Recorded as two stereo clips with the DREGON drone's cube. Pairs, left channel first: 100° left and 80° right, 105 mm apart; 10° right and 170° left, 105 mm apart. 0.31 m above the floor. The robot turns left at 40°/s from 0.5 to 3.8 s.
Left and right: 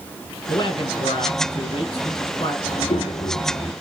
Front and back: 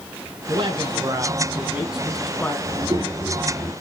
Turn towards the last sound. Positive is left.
turn(degrees=75)